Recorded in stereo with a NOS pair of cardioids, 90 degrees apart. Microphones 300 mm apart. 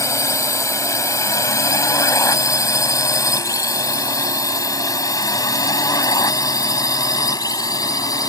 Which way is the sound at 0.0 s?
10° left.